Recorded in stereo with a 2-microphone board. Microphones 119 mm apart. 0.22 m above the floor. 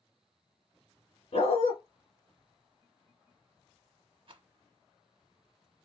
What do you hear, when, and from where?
1.3 s a dog barking: 50° left (ahead or behind), 1.4 m
4.3 s a rattle: 45° right (ahead or behind), 0.6 m